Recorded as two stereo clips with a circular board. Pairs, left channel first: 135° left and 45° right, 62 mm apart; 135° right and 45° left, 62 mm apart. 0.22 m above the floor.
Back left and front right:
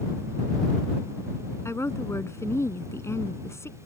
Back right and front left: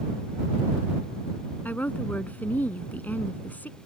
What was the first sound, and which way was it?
A woman speaking, 165° left.